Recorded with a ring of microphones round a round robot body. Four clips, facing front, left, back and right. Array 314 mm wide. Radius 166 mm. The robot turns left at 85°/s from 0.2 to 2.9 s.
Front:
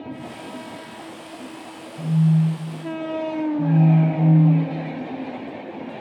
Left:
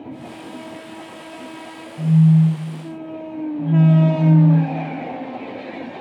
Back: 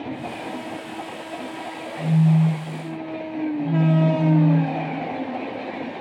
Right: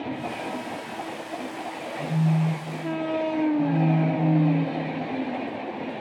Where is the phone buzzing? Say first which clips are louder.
Left 10 dB, back 1 dB; 90° left, 5.5 m; by 4.9 s 10° left, 5.5 m.